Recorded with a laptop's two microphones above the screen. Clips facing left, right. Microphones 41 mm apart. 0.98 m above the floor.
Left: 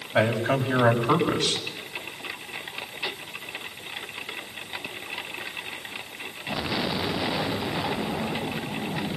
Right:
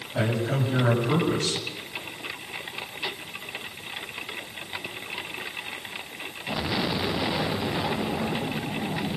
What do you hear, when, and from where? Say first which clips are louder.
0.1 s a man speaking: left 4 dB; 70° left (ahead or behind), 6 m